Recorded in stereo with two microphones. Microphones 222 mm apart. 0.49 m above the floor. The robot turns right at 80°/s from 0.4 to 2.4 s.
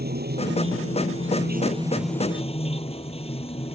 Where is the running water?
135° right; by 3.7 s 25° left.